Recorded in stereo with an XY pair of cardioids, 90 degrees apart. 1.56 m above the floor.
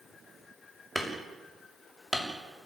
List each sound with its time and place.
0.9 s hammering: straight ahead, 6.5 m